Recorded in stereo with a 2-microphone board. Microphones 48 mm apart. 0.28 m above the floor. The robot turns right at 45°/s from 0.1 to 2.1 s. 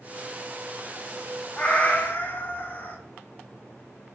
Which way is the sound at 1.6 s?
20° left (ahead or behind).